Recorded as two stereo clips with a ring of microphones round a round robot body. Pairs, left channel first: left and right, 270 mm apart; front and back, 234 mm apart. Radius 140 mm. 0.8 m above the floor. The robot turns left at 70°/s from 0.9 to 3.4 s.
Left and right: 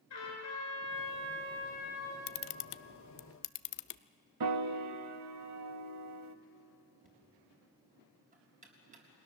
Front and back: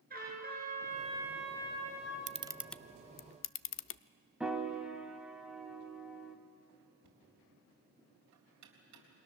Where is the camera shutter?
120° left, 0.5 m; by 4.0 s 40° left, 0.5 m.